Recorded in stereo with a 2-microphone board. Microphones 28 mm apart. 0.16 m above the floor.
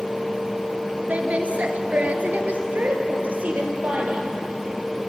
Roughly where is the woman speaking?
Right.